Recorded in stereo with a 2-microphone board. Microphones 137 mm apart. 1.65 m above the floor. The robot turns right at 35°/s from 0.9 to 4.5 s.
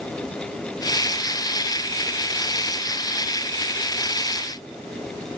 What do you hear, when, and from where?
Only background noise.